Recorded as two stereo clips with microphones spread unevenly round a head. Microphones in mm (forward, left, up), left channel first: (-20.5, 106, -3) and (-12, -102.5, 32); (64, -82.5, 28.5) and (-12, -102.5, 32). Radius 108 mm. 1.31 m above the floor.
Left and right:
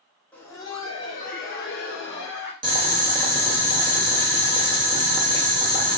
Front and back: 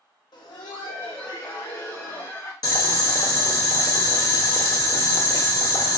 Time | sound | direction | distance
0.3 | laughter | 15° left | 0.7 m
2.6 | boiling | 20° right | 0.8 m